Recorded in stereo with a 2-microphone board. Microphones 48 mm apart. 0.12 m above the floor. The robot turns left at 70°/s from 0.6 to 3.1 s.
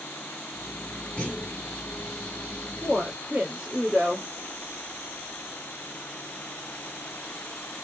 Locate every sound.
1.2 s a clunk: 155° left, 1.7 m; by 1.6 s 125° left, 1.7 m
2.8 s a woman speaking: 5° right (ahead or behind), 1.2 m; by 4.3 s 15° right (ahead or behind), 1.2 m